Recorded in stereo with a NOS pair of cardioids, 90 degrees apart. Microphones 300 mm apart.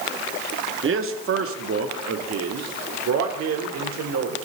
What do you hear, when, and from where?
0.8 s a man speaking: 40° right, 2.0 m; by 4.5 s 65° right, 3.5 m